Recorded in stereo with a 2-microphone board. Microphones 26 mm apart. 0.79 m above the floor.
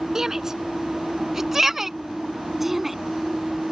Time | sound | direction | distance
0.1 | a shout | 20° right (ahead or behind) | ?